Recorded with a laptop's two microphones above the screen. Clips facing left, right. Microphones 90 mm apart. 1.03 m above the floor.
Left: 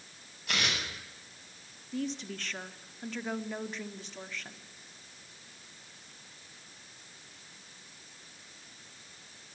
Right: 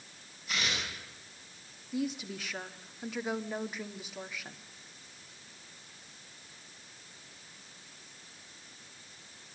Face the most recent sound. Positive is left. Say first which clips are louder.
# right 1 dB
turn(degrees=-10)  # may be behind; listen again after turning